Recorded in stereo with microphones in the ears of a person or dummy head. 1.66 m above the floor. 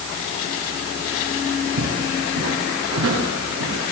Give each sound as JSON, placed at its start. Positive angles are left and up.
{"t": 1.8, "sound": "footsteps", "side_deg": -80, "distance_m": 8.0}